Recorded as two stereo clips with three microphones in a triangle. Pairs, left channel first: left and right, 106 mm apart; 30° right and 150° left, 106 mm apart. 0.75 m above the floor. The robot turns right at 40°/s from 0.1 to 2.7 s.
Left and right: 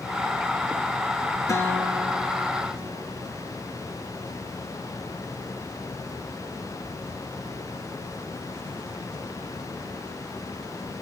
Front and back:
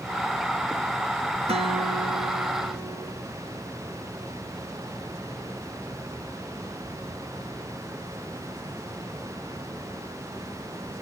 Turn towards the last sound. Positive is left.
turn(degrees=-160)